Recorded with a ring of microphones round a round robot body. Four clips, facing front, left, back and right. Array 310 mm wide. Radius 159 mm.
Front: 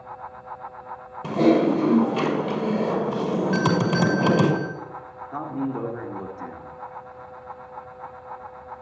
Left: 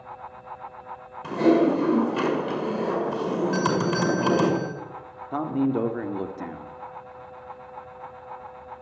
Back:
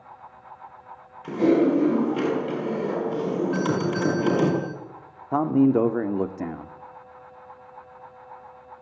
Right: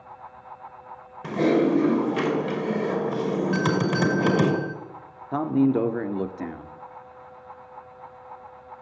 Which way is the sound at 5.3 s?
165° right.